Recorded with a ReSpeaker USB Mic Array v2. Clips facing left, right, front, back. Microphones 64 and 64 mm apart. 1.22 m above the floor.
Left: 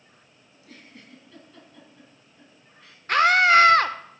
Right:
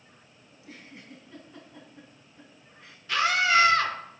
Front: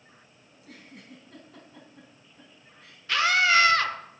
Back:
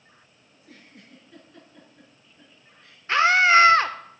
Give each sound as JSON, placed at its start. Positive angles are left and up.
{"t": 0.5, "sound": "a giggle", "azimuth_deg": -20, "distance_m": 4.5}
{"t": 3.1, "sound": "a scream", "azimuth_deg": 125, "distance_m": 1.1}